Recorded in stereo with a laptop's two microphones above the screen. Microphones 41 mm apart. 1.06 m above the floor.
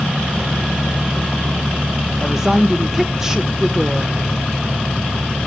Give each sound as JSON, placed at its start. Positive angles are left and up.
{"t": 2.2, "sound": "a woman speaking", "side_deg": -15, "distance_m": 0.8}